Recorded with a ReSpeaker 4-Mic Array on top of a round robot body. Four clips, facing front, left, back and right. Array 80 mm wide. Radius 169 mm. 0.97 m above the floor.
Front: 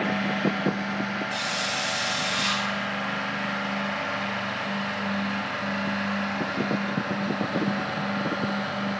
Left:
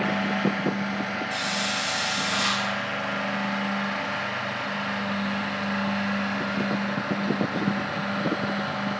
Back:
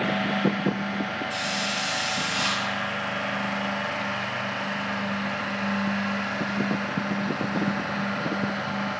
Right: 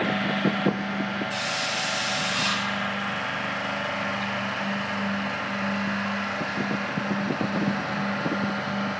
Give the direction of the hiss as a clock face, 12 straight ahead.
9 o'clock.